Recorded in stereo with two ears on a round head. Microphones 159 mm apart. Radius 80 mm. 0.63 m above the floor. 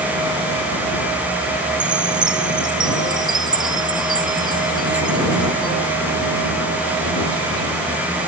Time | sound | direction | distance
1.8 | a chime | 25° right (ahead or behind) | ?